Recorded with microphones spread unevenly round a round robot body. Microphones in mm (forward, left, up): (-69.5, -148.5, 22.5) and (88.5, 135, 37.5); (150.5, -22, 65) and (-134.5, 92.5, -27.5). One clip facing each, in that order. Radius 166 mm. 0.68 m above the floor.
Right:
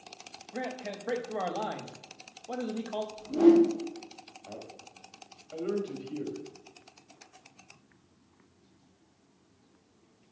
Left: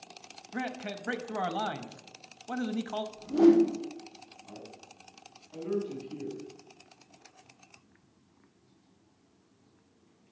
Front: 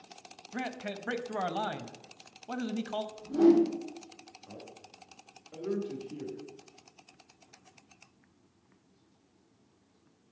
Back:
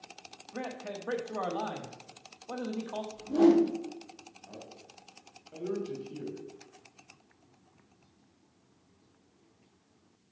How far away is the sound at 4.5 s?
About 3 m.